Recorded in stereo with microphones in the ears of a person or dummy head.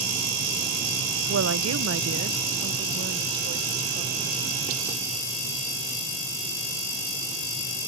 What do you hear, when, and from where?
1.3 s a woman speaking: 75° right (ahead or behind); by 4.4 s 50° right (ahead or behind)